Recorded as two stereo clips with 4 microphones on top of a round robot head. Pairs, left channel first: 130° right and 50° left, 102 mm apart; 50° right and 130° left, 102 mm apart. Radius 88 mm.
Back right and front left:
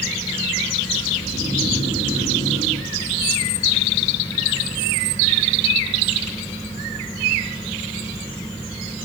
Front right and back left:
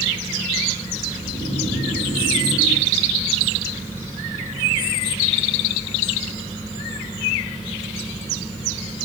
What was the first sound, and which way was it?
Snoring, 70° right.